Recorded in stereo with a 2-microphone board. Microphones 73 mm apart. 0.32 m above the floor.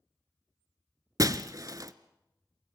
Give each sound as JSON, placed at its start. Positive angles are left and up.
{"t": 1.2, "sound": "breaking glass", "side_deg": -55, "distance_m": 0.9}